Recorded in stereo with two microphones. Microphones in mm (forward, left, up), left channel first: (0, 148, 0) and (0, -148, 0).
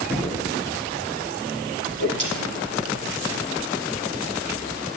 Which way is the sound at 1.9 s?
85° left.